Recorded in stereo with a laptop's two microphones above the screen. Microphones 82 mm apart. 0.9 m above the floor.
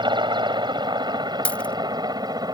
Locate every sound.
0.0 s a helicopter: 65° right (ahead or behind); by 2.5 s 50° right (ahead or behind)
1.4 s a dropped coin: 15° left (ahead or behind)